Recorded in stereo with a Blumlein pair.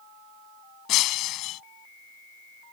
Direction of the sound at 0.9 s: 35° left.